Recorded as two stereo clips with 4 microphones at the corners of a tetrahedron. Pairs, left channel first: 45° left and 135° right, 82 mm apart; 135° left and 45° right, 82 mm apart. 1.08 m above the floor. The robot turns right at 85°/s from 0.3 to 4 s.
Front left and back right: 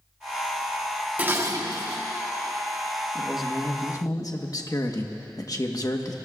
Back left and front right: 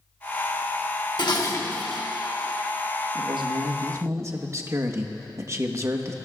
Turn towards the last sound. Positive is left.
turn(degrees=5)